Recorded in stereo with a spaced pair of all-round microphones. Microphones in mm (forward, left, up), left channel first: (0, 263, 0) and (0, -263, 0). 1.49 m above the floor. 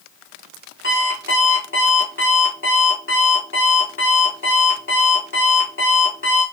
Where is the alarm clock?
20° left (ahead or behind), 1.9 m.